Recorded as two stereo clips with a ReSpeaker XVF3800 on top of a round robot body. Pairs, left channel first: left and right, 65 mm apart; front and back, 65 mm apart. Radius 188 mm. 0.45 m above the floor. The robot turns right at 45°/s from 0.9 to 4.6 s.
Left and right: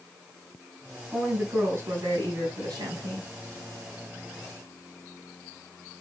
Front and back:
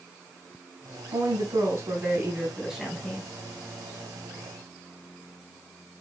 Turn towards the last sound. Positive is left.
turn(degrees=-10)